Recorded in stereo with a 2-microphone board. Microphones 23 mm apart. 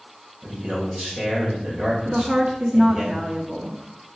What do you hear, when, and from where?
0.4 s a man speaking: 35° right (ahead or behind), 3 m
2.0 s a woman speaking: 50° right (ahead or behind), 1.3 m